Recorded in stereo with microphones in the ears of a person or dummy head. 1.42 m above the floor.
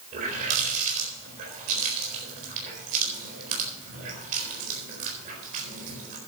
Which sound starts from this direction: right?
A running tap, at 0.1 s.